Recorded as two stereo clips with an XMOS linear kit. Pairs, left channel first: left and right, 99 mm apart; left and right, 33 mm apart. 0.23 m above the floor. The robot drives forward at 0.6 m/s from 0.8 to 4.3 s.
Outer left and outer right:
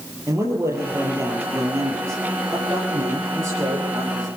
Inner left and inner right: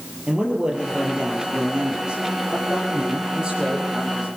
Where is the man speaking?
30° right (ahead or behind), 6.5 m; by 4.3 s 20° right (ahead or behind), 8.5 m.